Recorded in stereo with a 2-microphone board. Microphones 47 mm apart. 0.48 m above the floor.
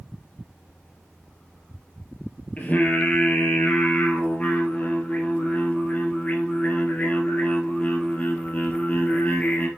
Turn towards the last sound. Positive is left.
turn(degrees=35)  # may be behind; listen again after turning